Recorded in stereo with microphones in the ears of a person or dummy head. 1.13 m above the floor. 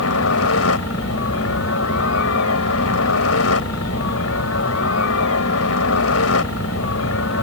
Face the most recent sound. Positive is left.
turn(degrees=75)  # may be behind; listen again after turning